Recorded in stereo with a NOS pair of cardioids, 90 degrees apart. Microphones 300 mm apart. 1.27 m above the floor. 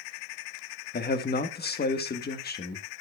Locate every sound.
0.9 s a man speaking: 35° left, 1.6 m